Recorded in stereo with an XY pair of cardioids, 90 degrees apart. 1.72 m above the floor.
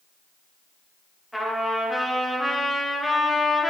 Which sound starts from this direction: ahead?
A trumpet, at 1.3 s.